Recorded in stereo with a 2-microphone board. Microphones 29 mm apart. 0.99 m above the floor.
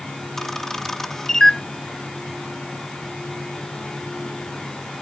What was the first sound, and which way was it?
A camera shutter, 10° left (ahead or behind).